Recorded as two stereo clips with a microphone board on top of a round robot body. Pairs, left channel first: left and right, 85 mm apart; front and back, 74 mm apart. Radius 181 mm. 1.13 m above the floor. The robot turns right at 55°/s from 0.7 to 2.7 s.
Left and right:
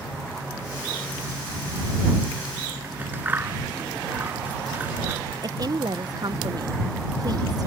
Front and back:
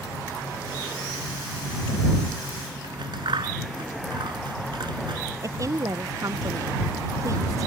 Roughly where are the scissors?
Behind.